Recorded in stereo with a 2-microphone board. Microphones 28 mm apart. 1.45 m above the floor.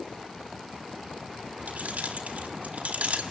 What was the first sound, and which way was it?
Keys jangling, 75° right (ahead or behind).